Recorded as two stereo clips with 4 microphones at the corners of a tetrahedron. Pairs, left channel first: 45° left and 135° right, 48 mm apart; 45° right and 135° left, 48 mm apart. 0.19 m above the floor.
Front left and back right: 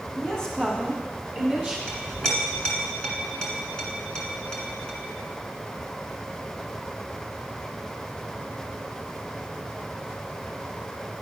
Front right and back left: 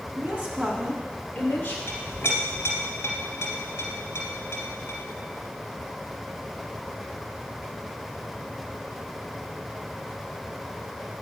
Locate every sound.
0.2 s a woman speaking: 110° left, 1.9 m; by 1.8 s 50° right, 1.7 m
1.9 s a clink: 30° right, 1.9 m